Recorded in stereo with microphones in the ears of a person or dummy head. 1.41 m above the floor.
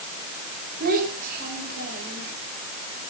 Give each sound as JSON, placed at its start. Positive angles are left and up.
{"t": 0.8, "sound": "a child speaking", "side_deg": -50, "distance_m": 5.5}